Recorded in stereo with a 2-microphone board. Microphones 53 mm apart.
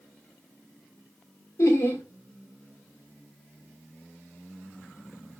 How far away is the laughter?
About 2.5 m.